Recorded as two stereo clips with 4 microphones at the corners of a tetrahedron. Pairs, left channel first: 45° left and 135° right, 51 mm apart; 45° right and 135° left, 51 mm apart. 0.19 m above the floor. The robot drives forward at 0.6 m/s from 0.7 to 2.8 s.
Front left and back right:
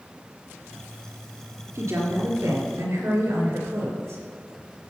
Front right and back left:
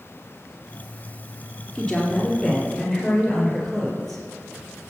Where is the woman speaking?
120° right, 3 m; by 4.2 s 130° right, 3.5 m.